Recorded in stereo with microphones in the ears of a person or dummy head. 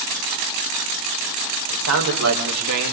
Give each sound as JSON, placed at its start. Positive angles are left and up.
{"t": 1.7, "sound": "a man speaking", "side_deg": -85, "distance_m": 5.0}